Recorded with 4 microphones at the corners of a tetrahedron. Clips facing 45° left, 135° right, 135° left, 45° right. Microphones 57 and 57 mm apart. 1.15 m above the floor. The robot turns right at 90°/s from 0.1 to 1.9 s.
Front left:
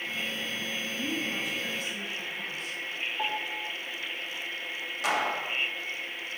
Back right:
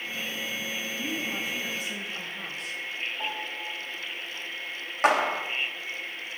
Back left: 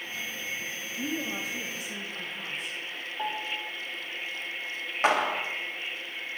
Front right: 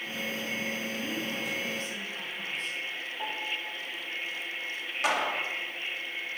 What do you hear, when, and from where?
1.0 s a woman speaking: 110° left, 1.6 m; by 2.8 s 165° right, 1.6 m
3.2 s a piano: 90° left, 3.5 m
5.0 s a clap: 175° right, 1.1 m